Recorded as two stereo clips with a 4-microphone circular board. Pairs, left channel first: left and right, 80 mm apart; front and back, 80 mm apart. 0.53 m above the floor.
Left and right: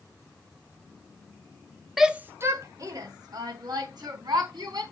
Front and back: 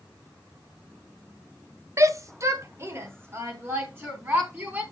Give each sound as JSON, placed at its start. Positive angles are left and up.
{"t": 2.0, "sound": "a shout", "azimuth_deg": 180, "distance_m": 0.8}